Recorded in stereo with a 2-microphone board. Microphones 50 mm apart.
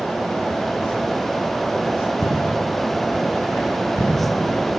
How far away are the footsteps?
About 1.5 m.